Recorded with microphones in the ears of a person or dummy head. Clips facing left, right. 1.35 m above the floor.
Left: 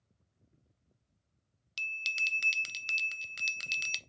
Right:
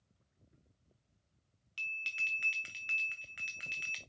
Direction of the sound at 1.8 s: 50° left (ahead or behind).